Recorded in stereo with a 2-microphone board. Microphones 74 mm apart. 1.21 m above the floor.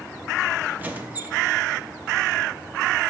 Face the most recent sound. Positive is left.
turn(degrees=-25)  # may be behind; listen again after turning